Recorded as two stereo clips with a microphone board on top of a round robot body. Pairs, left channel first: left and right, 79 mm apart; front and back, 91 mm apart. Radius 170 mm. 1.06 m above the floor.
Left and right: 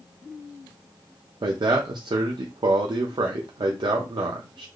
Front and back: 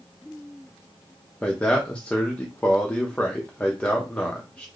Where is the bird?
I don't hear a bird.